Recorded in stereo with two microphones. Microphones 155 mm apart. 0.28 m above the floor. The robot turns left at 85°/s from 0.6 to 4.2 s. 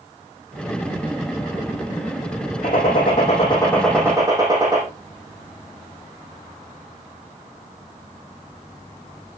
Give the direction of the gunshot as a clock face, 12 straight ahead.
8 o'clock.